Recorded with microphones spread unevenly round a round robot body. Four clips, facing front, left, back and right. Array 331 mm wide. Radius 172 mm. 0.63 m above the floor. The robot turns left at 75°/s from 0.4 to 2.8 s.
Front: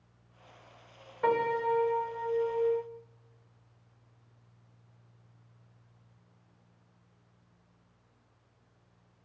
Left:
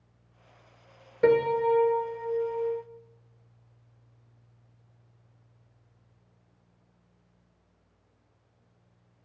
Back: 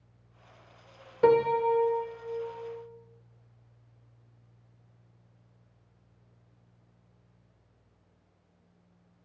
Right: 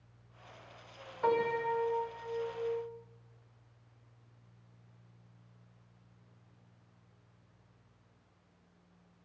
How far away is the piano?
About 1.8 m.